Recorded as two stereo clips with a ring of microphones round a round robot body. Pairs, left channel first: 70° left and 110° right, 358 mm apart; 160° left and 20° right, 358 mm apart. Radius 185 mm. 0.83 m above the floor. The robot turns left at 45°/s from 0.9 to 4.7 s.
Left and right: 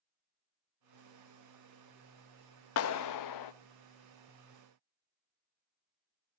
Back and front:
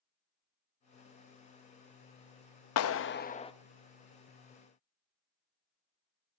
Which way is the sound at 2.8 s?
115° left.